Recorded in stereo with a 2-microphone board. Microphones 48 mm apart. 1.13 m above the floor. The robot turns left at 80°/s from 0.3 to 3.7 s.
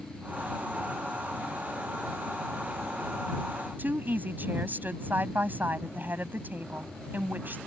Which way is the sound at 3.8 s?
40° right (ahead or behind).